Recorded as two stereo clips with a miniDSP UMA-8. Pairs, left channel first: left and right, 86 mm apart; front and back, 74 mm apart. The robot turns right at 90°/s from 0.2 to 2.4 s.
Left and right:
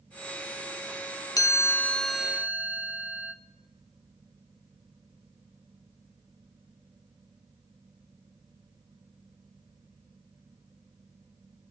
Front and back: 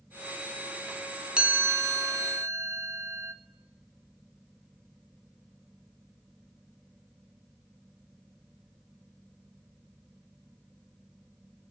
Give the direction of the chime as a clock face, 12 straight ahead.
8 o'clock.